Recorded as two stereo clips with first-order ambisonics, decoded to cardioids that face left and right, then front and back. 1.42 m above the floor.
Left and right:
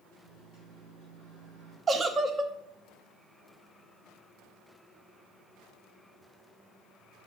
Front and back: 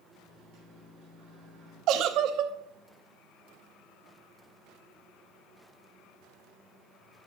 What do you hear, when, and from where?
0.2 s a microwave: 140° right, 5 m
1.9 s a giggle: 160° right, 0.6 m